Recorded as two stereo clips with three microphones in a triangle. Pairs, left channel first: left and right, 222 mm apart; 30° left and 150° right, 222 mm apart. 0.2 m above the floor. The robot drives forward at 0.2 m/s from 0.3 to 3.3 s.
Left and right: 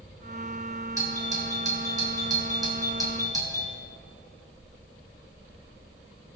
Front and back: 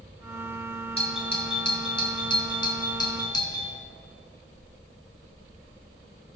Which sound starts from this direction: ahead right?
A doorbell, at 1.0 s.